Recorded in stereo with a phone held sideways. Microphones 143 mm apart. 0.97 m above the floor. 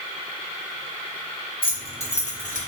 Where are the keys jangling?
40° left (ahead or behind), 1.1 m; by 2.7 s 65° left (ahead or behind), 0.7 m.